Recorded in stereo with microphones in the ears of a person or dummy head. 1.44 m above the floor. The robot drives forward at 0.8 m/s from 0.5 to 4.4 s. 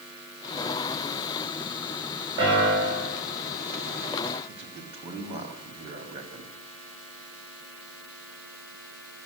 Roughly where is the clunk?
I don't hear a clunk.